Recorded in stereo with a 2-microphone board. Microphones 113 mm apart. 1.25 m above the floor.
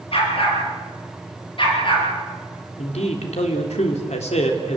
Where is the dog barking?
55° left (ahead or behind), 6 m; by 2.1 s 45° left (ahead or behind), 6 m.